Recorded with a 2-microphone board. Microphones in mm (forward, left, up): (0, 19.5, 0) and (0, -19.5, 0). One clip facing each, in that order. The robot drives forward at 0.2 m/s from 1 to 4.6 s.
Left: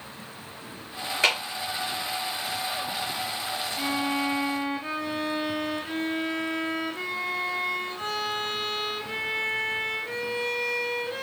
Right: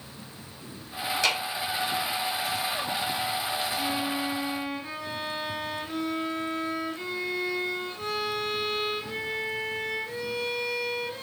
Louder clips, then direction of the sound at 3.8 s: Left 2 dB; 65° left (ahead or behind).